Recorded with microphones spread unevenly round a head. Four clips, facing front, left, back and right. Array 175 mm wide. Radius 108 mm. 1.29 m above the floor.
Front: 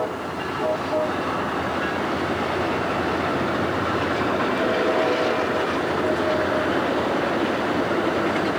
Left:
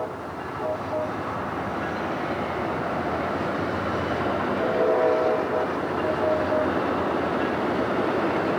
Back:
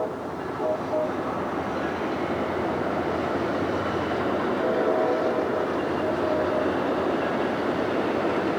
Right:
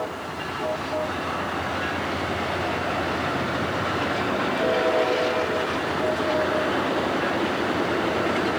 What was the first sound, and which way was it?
Only background noise.